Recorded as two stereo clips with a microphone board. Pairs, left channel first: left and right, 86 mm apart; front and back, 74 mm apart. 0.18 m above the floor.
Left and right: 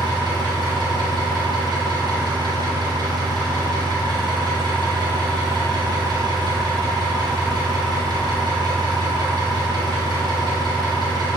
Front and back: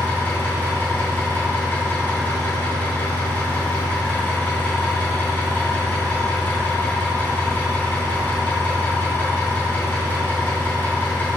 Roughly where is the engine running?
Ahead right.